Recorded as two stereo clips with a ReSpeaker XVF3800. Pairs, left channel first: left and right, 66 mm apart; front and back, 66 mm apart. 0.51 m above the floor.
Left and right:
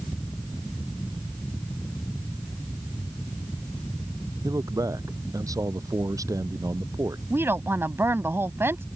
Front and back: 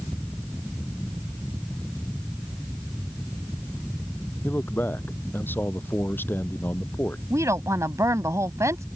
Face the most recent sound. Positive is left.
turn(degrees=-140)